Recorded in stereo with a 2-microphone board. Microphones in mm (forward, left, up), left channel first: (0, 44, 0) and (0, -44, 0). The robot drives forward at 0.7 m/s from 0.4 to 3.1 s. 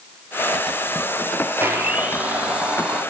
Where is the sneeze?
I don't hear a sneeze.